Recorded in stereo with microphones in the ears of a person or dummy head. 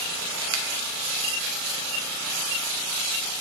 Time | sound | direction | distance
0.5 | a finger snap | 70° right (ahead or behind) | 0.8 m